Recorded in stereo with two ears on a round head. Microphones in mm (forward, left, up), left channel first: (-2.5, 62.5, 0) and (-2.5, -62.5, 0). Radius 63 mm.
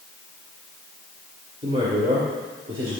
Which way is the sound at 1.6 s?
40° right (ahead or behind).